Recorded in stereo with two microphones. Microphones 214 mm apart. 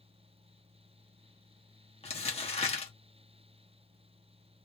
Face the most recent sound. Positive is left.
turn(degrees=30)  # may be behind; listen again after turning